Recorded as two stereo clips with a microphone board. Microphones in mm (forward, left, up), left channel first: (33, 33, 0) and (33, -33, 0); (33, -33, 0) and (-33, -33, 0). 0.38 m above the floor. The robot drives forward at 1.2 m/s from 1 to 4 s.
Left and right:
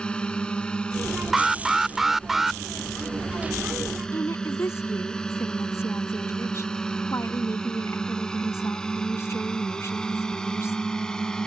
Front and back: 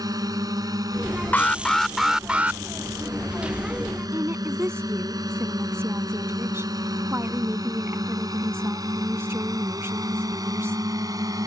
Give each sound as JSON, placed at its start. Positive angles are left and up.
{"t": 0.0, "sound": "a drone", "azimuth_deg": 165}
{"t": 1.3, "sound": "an alarm", "azimuth_deg": -10}
{"t": 4.1, "sound": "a woman speaking", "azimuth_deg": 130}